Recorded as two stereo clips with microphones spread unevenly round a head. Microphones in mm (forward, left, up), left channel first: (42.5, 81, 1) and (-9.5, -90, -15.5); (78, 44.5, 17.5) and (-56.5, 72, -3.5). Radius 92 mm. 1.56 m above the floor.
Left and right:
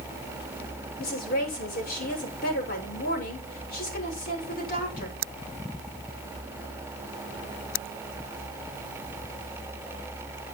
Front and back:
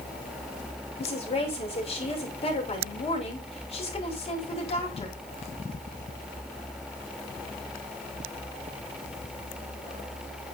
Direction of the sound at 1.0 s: 35° left.